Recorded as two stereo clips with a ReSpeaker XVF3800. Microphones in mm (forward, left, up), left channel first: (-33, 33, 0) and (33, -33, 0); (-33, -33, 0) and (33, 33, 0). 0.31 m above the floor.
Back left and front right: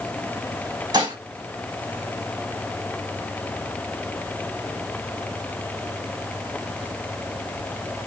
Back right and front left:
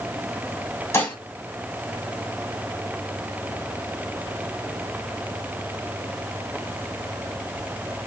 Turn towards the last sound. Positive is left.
turn(degrees=-80)